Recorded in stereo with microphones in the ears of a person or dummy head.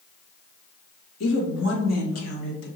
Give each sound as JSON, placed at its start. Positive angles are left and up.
{"t": 1.2, "sound": "a woman speaking", "side_deg": 75, "distance_m": 1.5}